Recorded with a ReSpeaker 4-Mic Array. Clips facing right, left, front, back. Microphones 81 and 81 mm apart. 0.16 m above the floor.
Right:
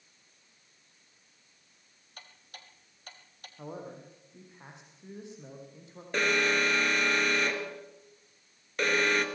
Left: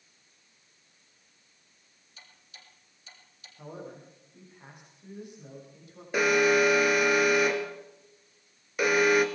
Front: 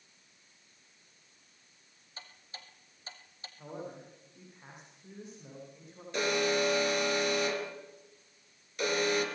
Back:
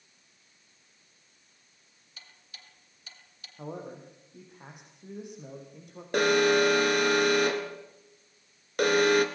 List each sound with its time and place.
2.2 s ticking: 55° right, 3 m
3.6 s a man speaking: 160° right, 7 m
6.1 s an alarm: 170° left, 2.5 m